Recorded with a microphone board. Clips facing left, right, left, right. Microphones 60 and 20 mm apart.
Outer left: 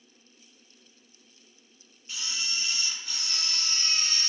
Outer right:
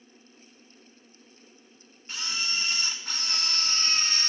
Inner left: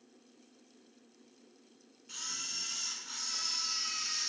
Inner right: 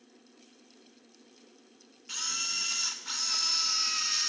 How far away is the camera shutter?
About 0.8 m.